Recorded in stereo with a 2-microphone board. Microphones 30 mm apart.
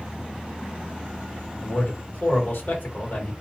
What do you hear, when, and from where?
1.6 s a man speaking: 65° left (ahead or behind), 1.4 m